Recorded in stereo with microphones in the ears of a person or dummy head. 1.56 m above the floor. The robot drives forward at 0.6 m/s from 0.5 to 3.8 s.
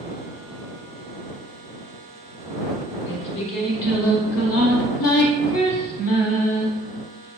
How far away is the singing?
About 1.0 m.